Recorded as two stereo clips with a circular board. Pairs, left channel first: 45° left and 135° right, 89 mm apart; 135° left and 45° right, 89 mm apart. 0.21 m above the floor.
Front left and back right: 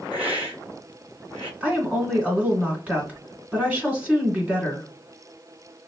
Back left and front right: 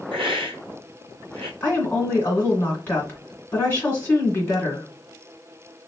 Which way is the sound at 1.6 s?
170° left.